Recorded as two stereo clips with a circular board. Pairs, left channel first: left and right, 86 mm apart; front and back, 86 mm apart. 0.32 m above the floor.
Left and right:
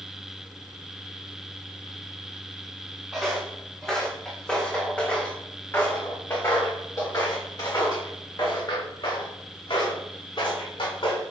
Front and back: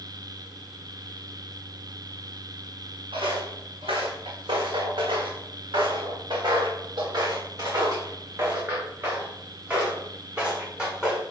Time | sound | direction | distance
3.1 | footsteps | straight behind | 3 m